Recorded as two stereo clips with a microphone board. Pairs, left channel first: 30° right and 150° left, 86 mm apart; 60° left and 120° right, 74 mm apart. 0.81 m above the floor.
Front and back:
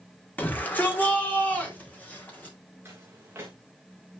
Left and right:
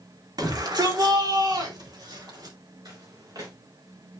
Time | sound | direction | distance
0.4 | a shout | 100° right | 2.5 m
2.9 | footsteps | 145° right | 3 m